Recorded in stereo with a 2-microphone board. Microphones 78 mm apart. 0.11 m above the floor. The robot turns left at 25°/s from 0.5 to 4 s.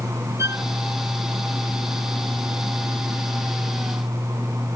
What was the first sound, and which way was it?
A violin, 40° right (ahead or behind).